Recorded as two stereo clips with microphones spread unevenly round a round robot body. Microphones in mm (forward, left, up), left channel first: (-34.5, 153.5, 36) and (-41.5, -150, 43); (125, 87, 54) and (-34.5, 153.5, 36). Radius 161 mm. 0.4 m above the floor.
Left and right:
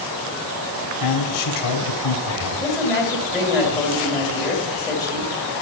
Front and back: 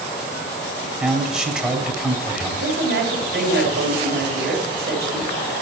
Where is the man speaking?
75° left, 2.5 m.